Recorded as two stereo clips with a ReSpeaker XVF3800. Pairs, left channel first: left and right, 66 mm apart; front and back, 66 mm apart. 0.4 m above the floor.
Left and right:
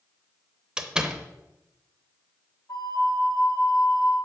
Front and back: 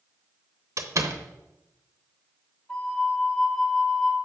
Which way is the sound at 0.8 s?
165° right.